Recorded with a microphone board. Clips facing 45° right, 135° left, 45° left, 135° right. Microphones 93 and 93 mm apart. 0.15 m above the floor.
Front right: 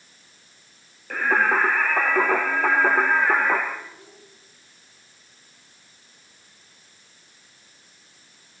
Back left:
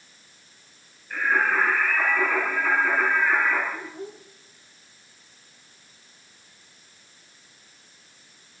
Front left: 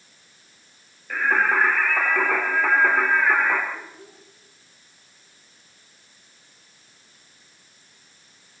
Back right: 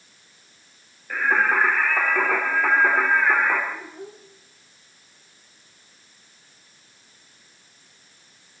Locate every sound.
1.1 s singing: 50° right, 4 m
3.7 s a child speaking: 175° left, 6.5 m